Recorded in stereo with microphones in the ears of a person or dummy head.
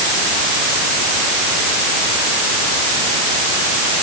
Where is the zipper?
No zipper in this recording.